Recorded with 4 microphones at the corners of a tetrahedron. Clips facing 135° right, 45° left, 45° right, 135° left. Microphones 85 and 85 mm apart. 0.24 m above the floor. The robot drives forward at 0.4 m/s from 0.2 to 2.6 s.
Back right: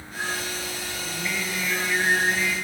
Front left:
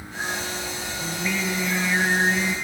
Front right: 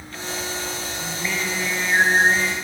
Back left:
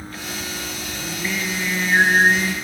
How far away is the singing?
About 3.5 m.